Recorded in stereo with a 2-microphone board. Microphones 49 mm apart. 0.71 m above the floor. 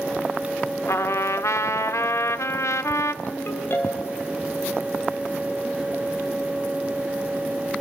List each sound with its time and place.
0.9 s a trumpet: 75° left (ahead or behind), 0.6 m
3.2 s a ringtone: 55° left (ahead or behind), 3 m